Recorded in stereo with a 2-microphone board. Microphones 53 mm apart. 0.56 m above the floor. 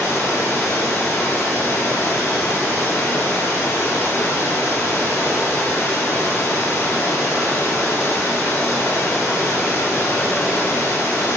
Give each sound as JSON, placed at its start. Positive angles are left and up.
{"t": 0.0, "sound": "running water", "side_deg": 55, "distance_m": 3.5}